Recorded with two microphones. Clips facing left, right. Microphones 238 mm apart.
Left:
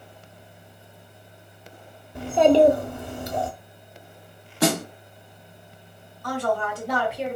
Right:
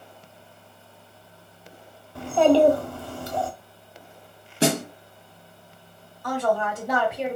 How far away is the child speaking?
About 0.6 m.